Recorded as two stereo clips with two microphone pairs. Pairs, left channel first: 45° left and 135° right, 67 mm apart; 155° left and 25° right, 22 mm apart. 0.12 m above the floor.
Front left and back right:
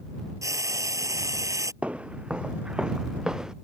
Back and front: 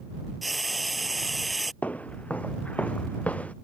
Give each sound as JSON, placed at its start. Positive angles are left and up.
{"t": 0.4, "sound": "frying", "azimuth_deg": -110}
{"t": 1.8, "sound": "footsteps", "azimuth_deg": 155}